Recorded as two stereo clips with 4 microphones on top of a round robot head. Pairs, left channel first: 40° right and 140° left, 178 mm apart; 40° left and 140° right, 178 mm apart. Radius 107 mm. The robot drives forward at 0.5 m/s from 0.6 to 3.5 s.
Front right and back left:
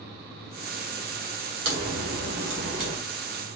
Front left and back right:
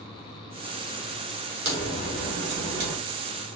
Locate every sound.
1.6 s a crack: 170° left, 3 m